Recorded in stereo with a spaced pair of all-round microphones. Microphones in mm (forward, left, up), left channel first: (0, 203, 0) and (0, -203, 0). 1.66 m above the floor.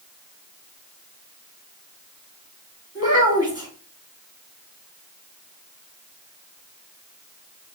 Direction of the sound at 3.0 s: 35° left (ahead or behind).